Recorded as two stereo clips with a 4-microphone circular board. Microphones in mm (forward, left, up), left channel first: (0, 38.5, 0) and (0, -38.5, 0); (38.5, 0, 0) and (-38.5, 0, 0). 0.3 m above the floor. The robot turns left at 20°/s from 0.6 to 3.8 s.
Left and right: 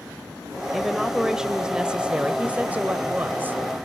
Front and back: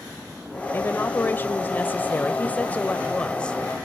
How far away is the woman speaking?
About 1.0 m.